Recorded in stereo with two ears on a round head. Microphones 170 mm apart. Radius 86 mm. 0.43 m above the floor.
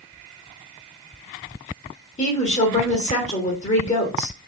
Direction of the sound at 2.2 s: 35° left (ahead or behind).